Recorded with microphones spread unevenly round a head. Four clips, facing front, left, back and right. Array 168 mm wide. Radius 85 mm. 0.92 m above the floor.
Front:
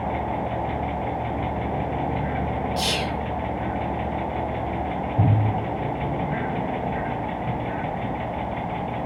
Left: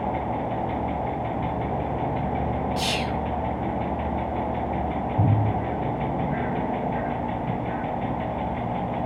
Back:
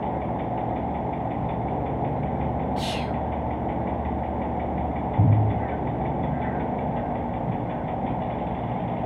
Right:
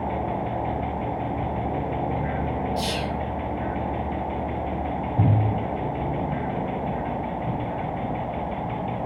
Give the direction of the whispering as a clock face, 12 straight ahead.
11 o'clock.